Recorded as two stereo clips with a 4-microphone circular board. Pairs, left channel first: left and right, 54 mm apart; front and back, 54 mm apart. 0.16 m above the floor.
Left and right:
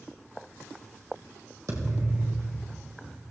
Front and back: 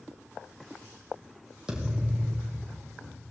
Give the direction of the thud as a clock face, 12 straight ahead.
4 o'clock.